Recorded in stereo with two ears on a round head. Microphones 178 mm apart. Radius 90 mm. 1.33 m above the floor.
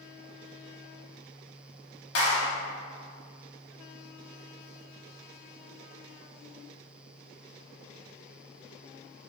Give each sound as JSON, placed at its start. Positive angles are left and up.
{"t": 2.1, "sound": "a clap", "side_deg": 55, "distance_m": 2.0}